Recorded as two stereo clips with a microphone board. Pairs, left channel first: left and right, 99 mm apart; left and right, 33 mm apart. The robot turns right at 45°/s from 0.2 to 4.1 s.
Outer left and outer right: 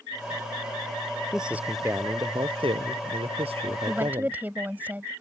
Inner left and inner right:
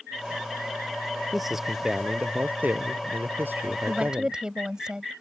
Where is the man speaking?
Straight behind; by 4.4 s 55° right.